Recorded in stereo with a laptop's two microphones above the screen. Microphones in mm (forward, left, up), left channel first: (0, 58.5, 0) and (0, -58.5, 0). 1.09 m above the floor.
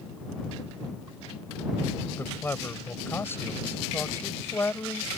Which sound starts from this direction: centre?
A man speaking, at 2.2 s.